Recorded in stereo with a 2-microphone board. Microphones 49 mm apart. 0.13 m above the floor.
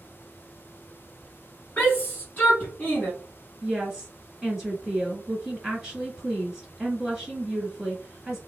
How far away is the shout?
About 1.3 m.